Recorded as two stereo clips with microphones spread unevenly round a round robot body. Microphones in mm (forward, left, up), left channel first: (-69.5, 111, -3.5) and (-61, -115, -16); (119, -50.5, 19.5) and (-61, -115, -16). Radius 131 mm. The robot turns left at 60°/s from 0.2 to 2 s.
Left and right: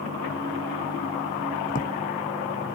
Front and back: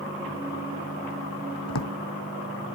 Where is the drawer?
30° left; by 1.9 s 15° left.